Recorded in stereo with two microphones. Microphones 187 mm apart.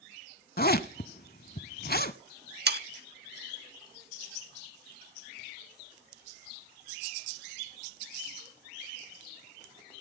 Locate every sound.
0.6 s a zipper: 55° left (ahead or behind), 0.7 m
2.7 s sawing: 65° right (ahead or behind), 0.7 m